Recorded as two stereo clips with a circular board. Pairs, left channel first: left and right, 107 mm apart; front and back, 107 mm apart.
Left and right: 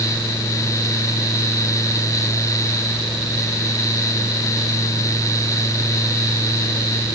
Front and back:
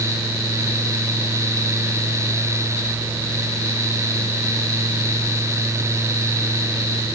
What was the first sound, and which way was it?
Only background noise.